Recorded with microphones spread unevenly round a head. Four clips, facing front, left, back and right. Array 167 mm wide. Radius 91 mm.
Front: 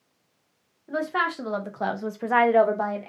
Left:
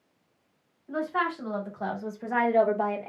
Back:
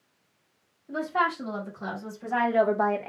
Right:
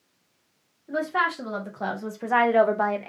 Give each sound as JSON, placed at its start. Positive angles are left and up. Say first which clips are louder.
{"t": 0.9, "sound": "a woman speaking", "louder": "right 3 dB, even", "azimuth_deg": -25, "distance_m": 1.7}